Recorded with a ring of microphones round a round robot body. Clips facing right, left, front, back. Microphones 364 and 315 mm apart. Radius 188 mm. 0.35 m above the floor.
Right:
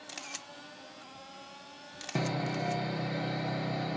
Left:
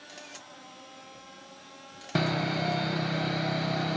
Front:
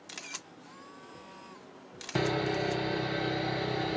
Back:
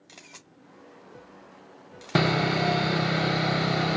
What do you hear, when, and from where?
0.1 s a camera shutter: 45° right, 0.5 m
2.1 s sawing: 150° left, 0.5 m